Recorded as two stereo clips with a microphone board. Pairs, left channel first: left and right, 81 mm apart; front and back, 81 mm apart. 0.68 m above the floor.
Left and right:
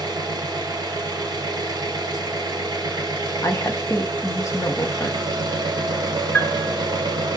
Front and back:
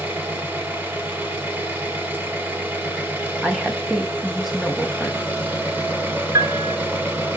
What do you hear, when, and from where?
0.0 s an engine running: 115° right, 1.2 m
3.4 s a woman speaking: 90° left, 0.9 m
6.3 s a piano: 165° left, 0.8 m